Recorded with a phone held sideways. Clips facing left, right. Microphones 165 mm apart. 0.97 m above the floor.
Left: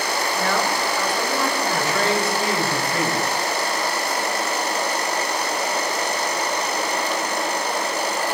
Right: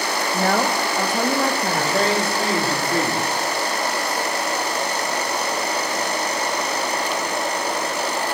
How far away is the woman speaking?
About 1.1 m.